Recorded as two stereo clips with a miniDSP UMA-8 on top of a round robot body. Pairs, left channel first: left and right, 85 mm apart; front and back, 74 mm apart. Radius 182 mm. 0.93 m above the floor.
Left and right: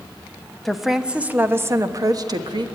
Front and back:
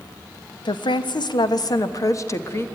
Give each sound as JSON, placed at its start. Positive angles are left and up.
{"t": 0.7, "sound": "a woman speaking", "azimuth_deg": 0, "distance_m": 1.2}